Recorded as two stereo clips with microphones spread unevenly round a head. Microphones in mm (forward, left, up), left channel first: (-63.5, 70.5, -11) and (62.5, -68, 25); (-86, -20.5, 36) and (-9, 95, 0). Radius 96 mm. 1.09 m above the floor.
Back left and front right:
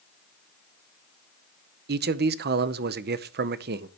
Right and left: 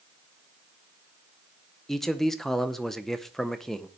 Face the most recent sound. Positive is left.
turn(degrees=-20)